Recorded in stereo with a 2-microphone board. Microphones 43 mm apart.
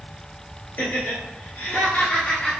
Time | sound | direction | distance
0.8 | laughter | 45° left (ahead or behind) | 1.8 m